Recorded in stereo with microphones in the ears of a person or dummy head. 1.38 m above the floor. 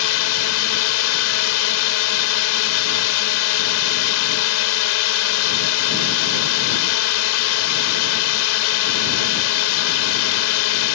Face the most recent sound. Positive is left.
turn(degrees=80)